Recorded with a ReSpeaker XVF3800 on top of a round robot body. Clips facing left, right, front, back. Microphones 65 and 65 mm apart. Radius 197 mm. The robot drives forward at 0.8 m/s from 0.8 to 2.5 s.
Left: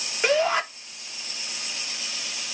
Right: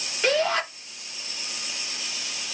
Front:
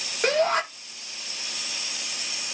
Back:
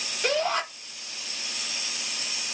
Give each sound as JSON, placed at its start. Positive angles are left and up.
{"t": 0.2, "sound": "a shout", "azimuth_deg": 20, "distance_m": 1.2}